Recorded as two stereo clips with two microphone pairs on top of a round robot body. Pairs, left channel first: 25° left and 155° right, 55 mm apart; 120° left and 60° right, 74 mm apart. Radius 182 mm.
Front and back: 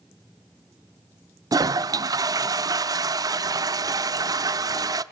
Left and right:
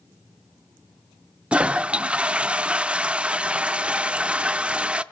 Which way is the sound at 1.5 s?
140° right.